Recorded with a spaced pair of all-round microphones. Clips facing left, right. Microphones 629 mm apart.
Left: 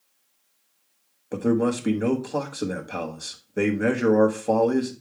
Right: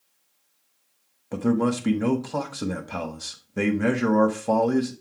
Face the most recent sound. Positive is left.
turn(degrees=-30)  # may be behind; listen again after turning